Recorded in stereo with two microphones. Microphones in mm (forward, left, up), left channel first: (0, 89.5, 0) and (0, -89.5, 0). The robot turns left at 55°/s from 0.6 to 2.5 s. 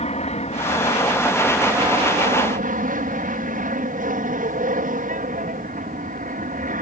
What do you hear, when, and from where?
0.0 s an aircraft: 45° left; by 6.8 s 60° right